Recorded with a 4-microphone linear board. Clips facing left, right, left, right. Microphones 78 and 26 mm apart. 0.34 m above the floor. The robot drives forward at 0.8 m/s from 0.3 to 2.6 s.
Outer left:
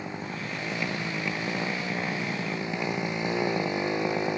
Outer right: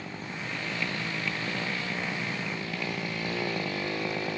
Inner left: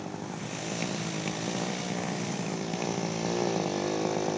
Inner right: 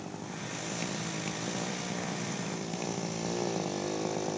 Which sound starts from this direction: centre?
A motorcycle, at 0.0 s.